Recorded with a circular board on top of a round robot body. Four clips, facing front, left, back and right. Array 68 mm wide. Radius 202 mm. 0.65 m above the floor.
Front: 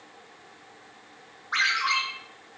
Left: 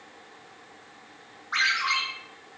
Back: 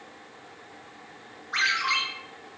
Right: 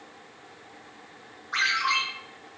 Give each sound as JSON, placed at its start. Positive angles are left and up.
{"t": 1.5, "sound": "a ringtone", "azimuth_deg": 20, "distance_m": 2.5}